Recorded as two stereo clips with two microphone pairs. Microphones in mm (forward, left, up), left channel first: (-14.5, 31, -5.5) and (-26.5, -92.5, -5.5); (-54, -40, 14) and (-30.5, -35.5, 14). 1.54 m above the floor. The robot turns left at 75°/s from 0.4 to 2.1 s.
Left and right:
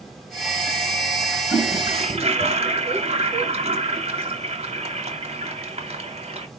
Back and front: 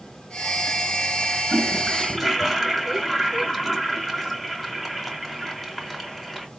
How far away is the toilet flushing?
About 1.2 m.